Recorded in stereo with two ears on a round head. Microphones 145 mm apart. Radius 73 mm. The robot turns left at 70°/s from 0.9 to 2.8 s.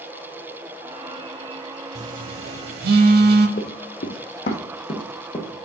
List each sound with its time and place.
1.9 s a phone buzzing: 40° right (ahead or behind), 0.9 m; by 3.5 s 60° right (ahead or behind), 0.9 m
3.6 s running footsteps: 55° left (ahead or behind), 1.4 m; by 5.5 s 25° left (ahead or behind), 2 m